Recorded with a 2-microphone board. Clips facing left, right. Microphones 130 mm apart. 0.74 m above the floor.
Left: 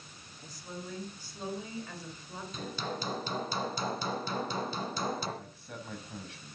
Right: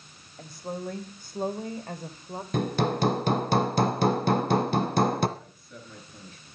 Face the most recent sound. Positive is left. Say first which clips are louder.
# left 2 dB
turn(degrees=80)